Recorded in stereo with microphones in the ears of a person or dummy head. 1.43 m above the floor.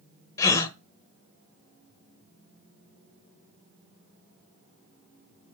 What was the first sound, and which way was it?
A gasp, 25° left (ahead or behind).